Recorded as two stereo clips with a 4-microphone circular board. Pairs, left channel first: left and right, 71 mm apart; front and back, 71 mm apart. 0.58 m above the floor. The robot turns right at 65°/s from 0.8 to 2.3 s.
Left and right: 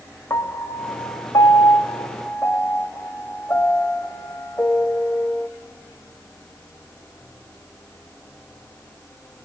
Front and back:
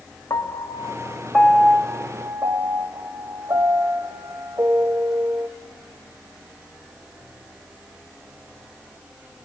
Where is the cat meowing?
I don't hear a cat meowing.